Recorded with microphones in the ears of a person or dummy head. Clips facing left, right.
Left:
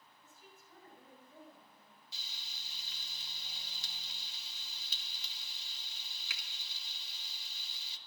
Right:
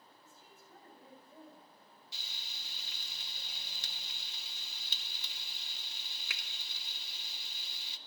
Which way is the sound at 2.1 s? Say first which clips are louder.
Right 3 dB; 55° right (ahead or behind).